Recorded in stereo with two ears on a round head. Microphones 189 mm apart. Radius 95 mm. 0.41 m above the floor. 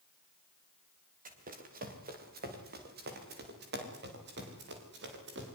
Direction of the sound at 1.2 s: 40° right (ahead or behind).